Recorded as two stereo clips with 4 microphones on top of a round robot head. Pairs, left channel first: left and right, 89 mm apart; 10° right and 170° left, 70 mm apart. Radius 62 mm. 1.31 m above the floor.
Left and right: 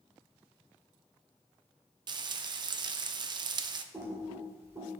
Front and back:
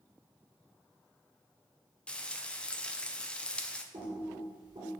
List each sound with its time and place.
2.1 s frying: 85° right, 0.6 m
3.9 s typing on a keyboard: 150° right, 2 m